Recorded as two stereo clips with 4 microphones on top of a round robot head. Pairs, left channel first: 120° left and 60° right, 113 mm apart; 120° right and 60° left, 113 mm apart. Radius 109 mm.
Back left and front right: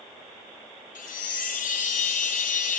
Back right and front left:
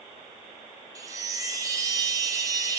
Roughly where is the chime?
Behind left.